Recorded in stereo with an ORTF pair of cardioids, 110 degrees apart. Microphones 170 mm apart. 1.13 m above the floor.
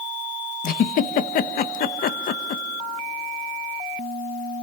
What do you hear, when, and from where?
0.6 s a giggle: 55° left, 0.8 m